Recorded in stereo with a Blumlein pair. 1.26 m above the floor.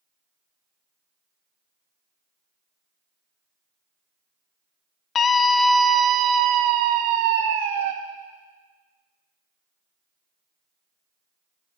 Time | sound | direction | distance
5.2 | a scream | 25° left | 0.8 m